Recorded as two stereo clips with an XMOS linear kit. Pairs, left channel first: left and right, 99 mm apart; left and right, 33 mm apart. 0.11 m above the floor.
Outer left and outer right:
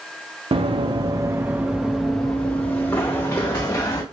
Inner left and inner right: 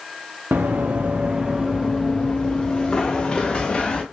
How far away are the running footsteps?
About 0.7 m.